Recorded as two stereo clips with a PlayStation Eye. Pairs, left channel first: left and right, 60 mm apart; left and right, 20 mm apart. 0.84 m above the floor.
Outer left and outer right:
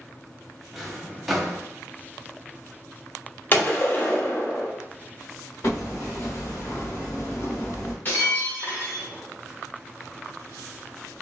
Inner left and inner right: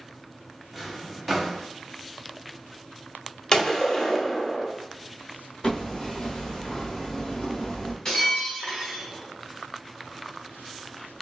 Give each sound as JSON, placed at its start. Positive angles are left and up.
{"t": 0.7, "sound": "a drawer", "side_deg": 0, "distance_m": 0.9}
{"t": 3.5, "sound": "a gunshot", "side_deg": 35, "distance_m": 1.1}
{"t": 5.6, "sound": "hammering", "side_deg": 50, "distance_m": 1.3}
{"t": 8.1, "sound": "breaking glass", "side_deg": 30, "distance_m": 1.8}